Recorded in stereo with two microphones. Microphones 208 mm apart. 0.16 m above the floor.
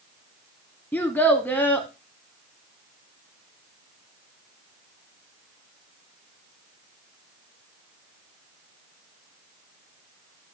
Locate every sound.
0.9 s a child speaking: 10° left (ahead or behind), 0.7 m